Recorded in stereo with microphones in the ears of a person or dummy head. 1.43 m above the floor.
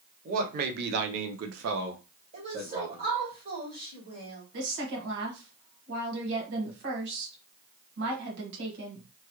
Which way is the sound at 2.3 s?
50° right (ahead or behind).